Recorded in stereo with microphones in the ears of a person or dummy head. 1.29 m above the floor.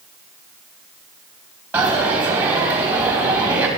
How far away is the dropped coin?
About 3 m.